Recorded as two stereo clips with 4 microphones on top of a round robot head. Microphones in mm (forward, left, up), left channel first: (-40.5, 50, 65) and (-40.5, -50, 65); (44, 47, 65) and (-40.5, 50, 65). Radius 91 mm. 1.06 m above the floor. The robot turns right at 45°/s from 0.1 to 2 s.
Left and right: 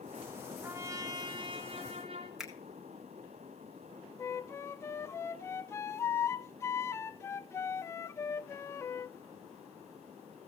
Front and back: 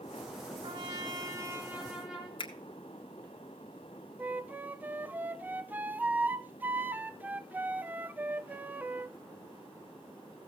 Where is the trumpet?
160° right, 2.0 m; by 2.3 s 95° right, 2.0 m.